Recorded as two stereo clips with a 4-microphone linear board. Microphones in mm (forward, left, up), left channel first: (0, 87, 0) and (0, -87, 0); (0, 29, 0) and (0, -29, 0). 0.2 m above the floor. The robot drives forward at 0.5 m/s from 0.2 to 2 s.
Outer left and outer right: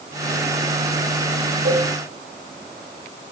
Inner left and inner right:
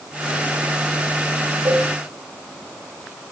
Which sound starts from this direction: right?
A cowbell, at 1.6 s.